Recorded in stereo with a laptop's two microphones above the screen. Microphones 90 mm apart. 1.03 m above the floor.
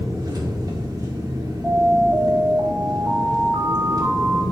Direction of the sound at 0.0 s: 50° right (ahead or behind).